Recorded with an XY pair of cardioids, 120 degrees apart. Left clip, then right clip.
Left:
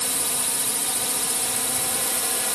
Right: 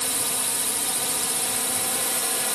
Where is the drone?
5° left.